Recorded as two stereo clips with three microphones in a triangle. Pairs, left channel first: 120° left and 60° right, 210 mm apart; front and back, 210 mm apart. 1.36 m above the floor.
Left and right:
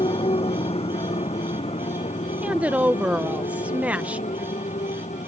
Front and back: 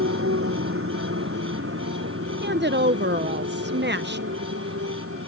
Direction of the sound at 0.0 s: 175° right.